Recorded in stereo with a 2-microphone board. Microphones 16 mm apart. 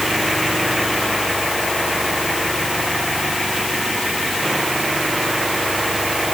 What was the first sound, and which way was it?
Only background noise.